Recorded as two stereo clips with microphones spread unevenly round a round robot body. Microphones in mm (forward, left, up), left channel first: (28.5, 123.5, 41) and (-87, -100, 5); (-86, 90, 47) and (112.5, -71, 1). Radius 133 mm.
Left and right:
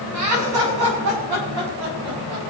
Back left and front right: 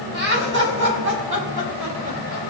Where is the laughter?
90° right, 6.5 m; by 2.5 s 80° right, 7 m.